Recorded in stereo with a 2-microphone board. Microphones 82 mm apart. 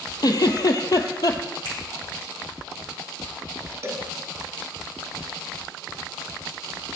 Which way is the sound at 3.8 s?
35° right (ahead or behind).